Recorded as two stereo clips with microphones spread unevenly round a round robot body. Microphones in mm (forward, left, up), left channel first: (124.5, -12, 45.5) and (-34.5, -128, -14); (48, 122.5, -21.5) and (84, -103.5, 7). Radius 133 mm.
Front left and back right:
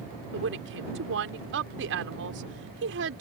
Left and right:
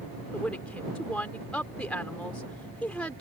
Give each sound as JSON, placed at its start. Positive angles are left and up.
{"t": 0.3, "sound": "a woman speaking", "azimuth_deg": -175}